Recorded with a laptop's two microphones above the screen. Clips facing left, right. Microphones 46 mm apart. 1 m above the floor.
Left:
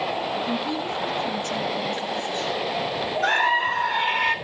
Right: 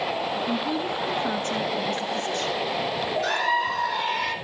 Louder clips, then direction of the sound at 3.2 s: Left 5 dB; 35° left (ahead or behind).